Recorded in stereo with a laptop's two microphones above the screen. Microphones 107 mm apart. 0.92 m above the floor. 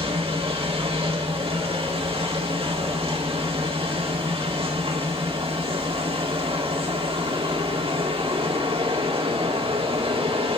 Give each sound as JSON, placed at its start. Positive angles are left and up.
{"t": 0.0, "sound": "a machine running", "side_deg": -70, "distance_m": 2.5}